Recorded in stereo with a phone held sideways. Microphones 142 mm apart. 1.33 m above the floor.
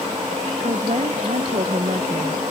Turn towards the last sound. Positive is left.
turn(degrees=-50)  # may be behind; listen again after turning